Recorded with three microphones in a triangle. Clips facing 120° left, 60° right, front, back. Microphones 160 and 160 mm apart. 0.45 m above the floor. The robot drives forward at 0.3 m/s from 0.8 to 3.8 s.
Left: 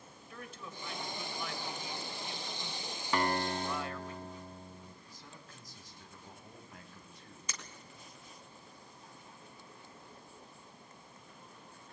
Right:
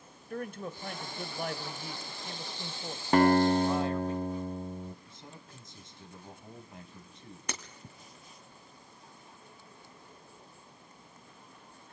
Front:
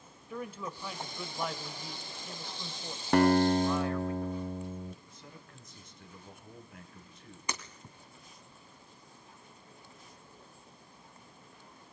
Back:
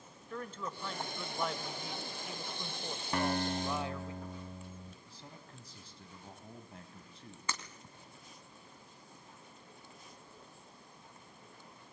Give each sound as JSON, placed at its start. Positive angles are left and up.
{"t": 0.3, "sound": "a man speaking", "azimuth_deg": -80, "distance_m": 1.6}
{"t": 3.1, "sound": "a guitar", "azimuth_deg": -15, "distance_m": 0.8}
{"t": 5.0, "sound": "a man speaking", "azimuth_deg": -125, "distance_m": 3.5}
{"t": 7.5, "sound": "breaking glass", "azimuth_deg": -70, "distance_m": 2.0}